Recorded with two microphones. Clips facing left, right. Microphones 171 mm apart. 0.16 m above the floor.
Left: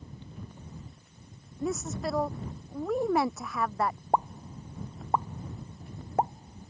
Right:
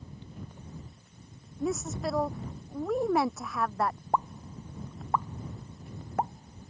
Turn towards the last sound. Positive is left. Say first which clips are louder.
# left 2 dB
turn(degrees=25)  # may be behind; listen again after turning